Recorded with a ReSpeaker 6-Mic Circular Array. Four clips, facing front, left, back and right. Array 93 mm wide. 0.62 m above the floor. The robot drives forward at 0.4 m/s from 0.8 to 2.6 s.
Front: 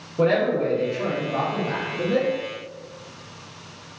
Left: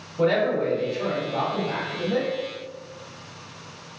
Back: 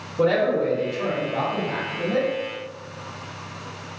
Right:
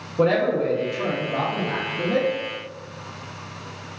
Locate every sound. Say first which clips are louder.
0.2 s a man speaking: right 2 dB, even; 60° right, 1.1 m; by 2.3 s 100° right, 1.1 m